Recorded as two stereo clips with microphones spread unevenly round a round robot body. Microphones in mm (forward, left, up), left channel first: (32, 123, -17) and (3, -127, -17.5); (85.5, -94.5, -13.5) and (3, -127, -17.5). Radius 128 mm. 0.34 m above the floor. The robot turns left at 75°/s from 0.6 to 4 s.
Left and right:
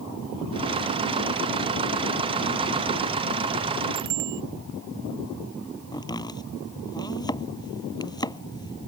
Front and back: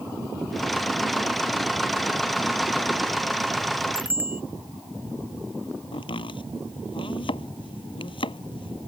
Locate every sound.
4.0 s a bicycle bell: 85° right; by 4.4 s 90° right
5.9 s chopping: 10° left